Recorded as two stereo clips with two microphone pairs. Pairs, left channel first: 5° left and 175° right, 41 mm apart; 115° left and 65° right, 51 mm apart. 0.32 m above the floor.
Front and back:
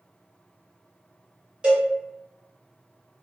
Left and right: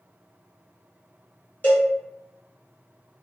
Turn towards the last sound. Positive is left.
turn(degrees=135)